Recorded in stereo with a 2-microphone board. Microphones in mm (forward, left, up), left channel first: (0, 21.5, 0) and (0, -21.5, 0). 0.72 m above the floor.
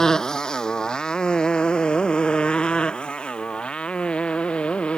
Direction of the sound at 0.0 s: 15° left (ahead or behind).